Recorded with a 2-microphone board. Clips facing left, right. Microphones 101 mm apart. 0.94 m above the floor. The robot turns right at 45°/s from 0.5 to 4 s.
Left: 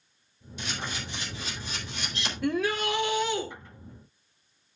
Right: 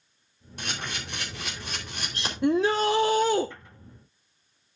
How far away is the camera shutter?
About 4 m.